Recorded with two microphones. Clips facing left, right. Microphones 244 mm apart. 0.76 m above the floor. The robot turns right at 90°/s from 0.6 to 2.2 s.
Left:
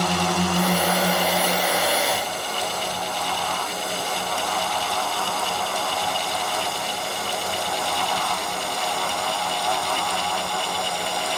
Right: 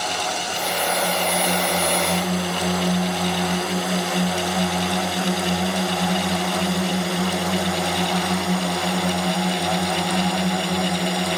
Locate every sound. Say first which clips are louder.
0.0 s a drone: left 5 dB; 65° left (ahead or behind); by 11.4 s 70° right (ahead or behind)